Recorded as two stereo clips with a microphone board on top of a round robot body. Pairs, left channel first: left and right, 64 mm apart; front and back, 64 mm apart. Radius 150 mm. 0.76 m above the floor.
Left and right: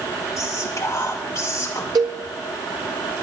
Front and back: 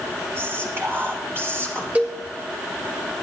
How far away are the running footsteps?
I don't hear running footsteps.